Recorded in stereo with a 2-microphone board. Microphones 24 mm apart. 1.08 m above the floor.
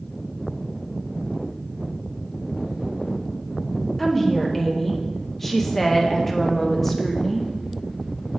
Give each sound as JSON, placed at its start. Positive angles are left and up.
{"t": 4.0, "sound": "a woman speaking", "side_deg": 10, "distance_m": 0.8}